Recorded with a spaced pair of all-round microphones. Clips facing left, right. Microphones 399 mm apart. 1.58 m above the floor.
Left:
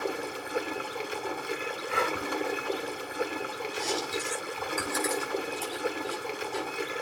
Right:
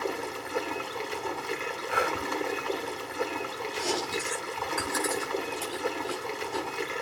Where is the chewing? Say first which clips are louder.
Right 2 dB; 75° right (ahead or behind), 6.5 m.